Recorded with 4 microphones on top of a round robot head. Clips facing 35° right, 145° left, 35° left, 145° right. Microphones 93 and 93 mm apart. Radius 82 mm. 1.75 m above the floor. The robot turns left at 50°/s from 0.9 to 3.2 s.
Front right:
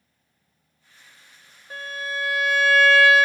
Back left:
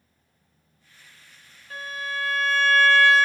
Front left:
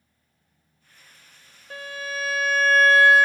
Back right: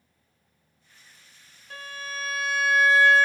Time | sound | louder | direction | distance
1.7 | a violin | front right 1 dB, front left 4 dB | 30° left | 0.7 m